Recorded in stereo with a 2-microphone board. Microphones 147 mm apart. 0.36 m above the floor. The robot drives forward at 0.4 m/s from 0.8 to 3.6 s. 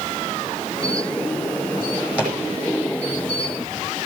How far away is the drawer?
About 9.5 m.